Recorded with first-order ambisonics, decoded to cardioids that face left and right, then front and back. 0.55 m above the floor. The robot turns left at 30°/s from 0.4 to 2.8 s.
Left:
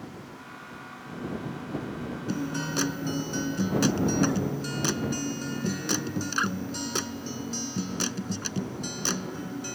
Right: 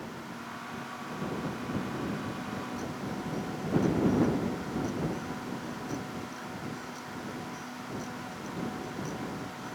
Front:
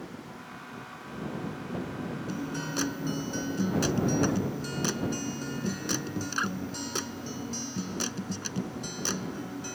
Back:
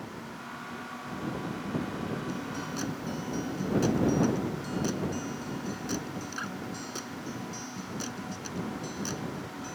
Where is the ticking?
No ticking in this recording.